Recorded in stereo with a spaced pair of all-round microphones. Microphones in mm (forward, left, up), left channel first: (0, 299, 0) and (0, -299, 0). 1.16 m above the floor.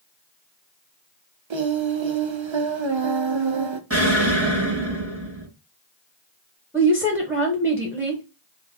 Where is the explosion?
25° right (ahead or behind), 1.0 m.